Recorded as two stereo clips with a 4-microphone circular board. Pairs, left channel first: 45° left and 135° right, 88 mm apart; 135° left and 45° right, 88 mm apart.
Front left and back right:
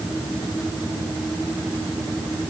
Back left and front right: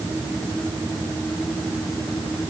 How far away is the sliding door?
I don't hear a sliding door.